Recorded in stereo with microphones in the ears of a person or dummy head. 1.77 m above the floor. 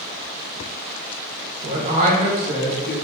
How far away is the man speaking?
About 0.7 m.